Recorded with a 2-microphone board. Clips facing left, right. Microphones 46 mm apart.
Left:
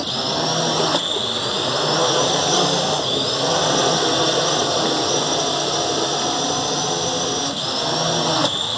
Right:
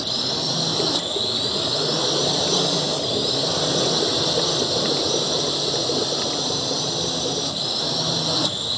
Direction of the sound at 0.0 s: 55° left (ahead or behind).